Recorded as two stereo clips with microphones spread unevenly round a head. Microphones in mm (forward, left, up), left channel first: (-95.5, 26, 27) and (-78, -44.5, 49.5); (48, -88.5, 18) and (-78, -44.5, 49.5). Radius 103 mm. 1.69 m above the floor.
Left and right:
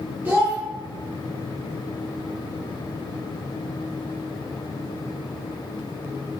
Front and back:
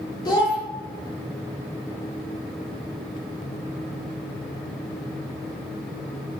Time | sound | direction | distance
0.2 | a child speaking | 85° right | 0.8 m